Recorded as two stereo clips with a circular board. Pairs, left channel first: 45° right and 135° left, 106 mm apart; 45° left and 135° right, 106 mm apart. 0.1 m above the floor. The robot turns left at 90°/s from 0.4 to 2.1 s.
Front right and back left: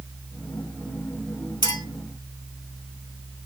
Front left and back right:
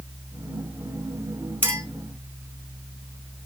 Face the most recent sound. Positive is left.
turn(degrees=-115)